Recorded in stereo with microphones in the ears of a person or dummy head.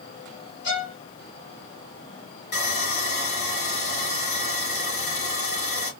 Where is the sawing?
55° left (ahead or behind), 3 m.